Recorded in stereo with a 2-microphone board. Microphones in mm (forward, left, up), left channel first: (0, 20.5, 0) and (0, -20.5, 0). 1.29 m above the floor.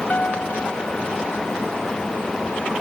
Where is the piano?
45° left (ahead or behind).